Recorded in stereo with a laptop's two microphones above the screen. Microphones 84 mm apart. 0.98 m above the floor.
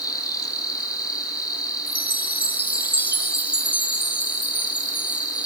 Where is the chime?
20° left (ahead or behind), 0.6 m.